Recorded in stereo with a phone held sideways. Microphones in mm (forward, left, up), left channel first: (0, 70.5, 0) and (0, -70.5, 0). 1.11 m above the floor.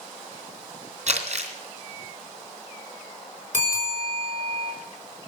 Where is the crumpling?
55° right (ahead or behind), 3 m.